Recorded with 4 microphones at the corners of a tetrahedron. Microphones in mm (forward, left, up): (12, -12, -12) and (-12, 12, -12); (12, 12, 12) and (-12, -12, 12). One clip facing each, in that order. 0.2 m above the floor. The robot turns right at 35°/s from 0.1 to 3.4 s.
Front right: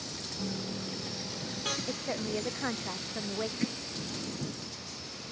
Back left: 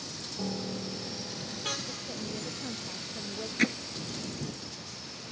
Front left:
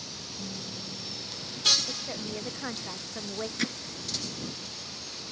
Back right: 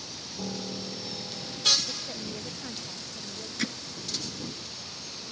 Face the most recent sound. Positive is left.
turn(degrees=130)